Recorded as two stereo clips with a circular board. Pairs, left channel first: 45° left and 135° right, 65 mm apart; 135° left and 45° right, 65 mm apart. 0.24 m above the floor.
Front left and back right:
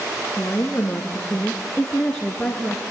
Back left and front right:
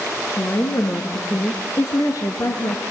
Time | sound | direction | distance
0.4 | a woman speaking | 100° left | 3 m